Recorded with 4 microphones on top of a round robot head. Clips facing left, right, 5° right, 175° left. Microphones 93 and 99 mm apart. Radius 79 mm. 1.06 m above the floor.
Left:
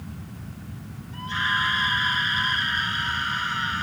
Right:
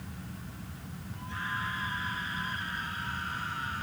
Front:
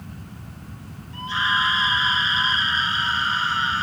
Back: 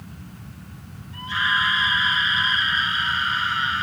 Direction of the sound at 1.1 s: 55° left.